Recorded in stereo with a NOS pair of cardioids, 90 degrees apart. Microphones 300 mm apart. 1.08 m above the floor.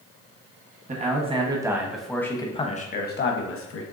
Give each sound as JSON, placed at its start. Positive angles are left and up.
{"t": 0.9, "sound": "a man speaking", "azimuth_deg": -25, "distance_m": 1.3}